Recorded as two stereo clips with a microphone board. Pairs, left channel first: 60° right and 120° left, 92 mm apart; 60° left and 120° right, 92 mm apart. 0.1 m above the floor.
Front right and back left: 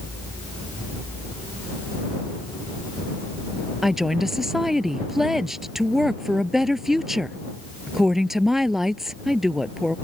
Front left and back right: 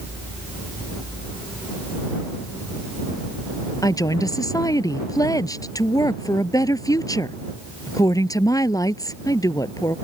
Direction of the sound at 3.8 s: 35° left.